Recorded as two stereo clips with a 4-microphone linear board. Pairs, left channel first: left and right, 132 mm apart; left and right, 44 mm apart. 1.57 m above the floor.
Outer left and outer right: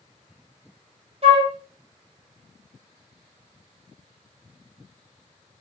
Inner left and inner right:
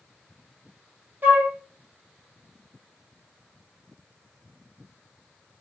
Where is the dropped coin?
No dropped coin in this recording.